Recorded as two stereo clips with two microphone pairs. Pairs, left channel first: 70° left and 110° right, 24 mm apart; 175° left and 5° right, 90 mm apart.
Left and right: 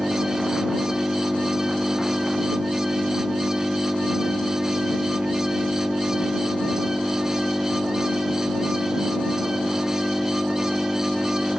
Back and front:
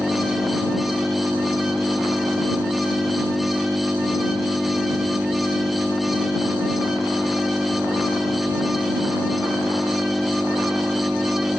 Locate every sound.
0.0 s an engine running: 85° right